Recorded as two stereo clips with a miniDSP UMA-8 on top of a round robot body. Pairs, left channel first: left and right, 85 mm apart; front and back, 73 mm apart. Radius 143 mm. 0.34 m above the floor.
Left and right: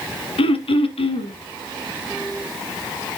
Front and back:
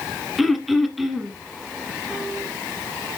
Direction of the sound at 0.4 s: 90° left.